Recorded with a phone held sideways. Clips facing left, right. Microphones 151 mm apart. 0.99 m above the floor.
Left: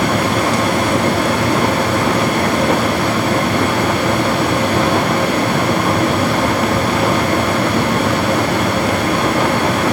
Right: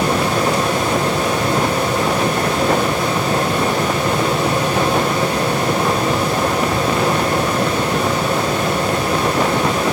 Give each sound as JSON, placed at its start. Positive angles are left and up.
{"t": 0.0, "sound": "a fan", "side_deg": 65, "distance_m": 3.5}